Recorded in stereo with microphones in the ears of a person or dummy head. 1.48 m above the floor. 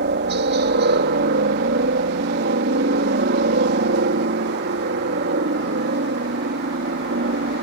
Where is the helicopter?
50° right (ahead or behind).